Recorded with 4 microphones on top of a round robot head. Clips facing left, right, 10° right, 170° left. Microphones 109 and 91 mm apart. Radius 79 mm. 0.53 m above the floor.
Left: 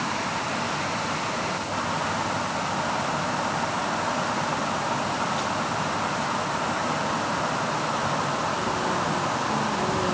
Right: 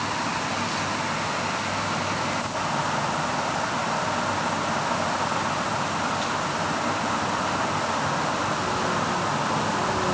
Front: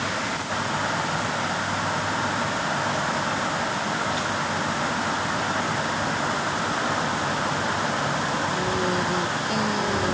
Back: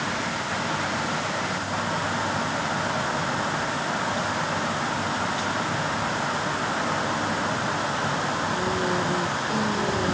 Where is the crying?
I don't hear crying.